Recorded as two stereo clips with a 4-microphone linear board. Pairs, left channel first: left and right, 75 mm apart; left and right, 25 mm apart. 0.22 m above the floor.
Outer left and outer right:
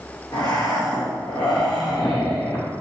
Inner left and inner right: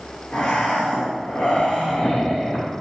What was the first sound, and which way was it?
Breathing, 70° left (ahead or behind).